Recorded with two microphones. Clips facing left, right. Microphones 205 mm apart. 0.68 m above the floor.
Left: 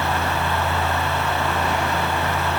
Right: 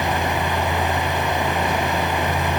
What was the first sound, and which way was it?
Only background noise.